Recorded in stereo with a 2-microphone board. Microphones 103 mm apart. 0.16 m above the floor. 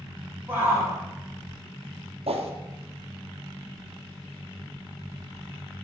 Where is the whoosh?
70° right (ahead or behind), 1.8 m.